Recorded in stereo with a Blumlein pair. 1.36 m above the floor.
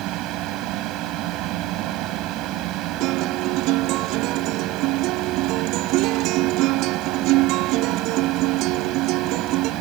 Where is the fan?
40° right.